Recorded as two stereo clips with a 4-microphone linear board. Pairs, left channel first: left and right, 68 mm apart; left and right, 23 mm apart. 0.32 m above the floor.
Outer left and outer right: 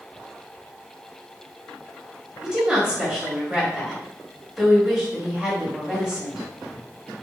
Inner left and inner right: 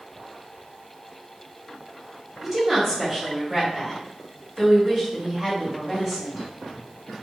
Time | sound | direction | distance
2.4 | a woman speaking | 10° right (ahead or behind) | 1.3 m